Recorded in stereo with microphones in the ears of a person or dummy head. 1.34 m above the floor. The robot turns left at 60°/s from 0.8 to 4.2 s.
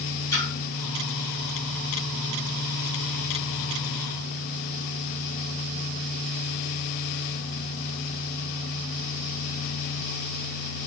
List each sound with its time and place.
0.3 s a splash: 20° left (ahead or behind), 1.2 m